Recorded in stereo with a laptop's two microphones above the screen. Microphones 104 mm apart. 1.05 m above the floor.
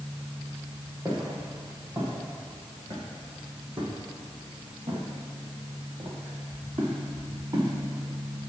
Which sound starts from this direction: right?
Footsteps, at 1.1 s.